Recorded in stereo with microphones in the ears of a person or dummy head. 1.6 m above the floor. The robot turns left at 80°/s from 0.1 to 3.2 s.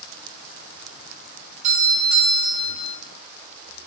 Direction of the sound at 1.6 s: 45° right.